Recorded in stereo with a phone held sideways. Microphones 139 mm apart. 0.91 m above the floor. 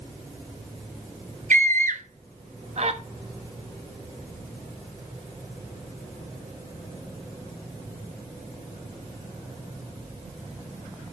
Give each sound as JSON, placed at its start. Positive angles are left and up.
{"t": 1.5, "sound": "a scream", "side_deg": -65, "distance_m": 1.2}